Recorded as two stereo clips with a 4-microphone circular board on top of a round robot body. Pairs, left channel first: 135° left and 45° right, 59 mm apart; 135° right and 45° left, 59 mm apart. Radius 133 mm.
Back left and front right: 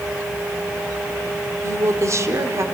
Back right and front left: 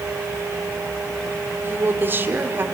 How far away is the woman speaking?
About 2 m.